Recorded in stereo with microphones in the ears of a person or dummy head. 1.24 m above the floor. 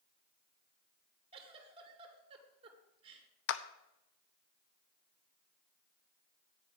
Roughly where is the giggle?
Right.